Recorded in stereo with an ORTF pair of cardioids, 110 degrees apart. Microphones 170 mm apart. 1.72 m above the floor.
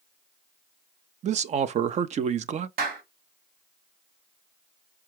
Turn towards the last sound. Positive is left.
turn(degrees=-70)